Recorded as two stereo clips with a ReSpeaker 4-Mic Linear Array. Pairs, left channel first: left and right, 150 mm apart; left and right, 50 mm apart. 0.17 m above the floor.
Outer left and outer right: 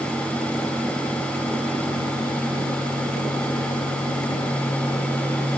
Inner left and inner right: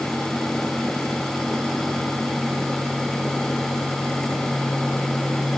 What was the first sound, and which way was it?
Only background noise.